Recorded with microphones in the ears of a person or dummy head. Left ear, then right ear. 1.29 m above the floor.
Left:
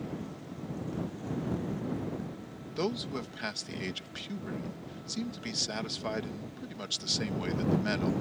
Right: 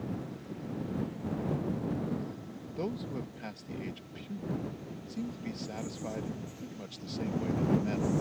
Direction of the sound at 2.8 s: 45° left (ahead or behind).